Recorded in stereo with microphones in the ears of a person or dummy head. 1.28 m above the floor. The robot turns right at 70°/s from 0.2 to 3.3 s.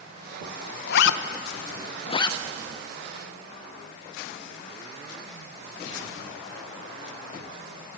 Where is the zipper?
60° left (ahead or behind), 0.8 m; by 2.4 s 15° left (ahead or behind), 0.8 m.